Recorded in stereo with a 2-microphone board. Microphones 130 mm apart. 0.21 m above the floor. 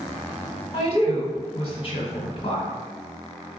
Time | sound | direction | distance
0.7 | a woman speaking | 45° left (ahead or behind) | 1.8 m